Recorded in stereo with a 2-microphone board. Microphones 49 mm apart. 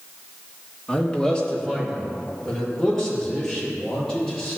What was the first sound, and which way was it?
A man speaking, 15° left (ahead or behind).